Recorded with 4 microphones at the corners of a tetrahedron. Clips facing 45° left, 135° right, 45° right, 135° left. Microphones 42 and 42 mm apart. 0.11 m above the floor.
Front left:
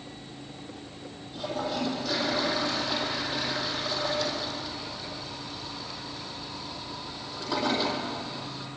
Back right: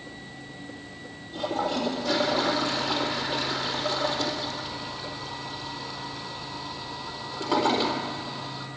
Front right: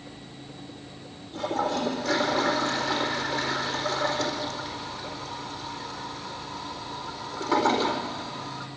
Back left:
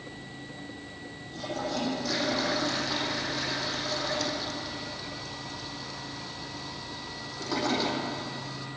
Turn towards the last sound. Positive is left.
turn(degrees=-105)